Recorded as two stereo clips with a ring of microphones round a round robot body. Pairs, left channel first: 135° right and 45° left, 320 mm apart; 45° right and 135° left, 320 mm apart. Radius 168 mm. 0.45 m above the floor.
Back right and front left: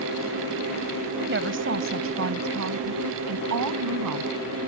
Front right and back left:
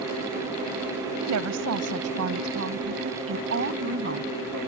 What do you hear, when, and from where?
1.2 s a woman speaking: 100° left; by 4.3 s 80° left